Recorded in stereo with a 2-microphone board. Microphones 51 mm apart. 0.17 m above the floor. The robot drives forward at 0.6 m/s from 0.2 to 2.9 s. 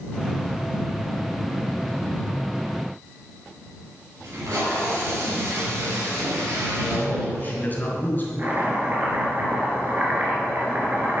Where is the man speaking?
35° left (ahead or behind), 2.5 m.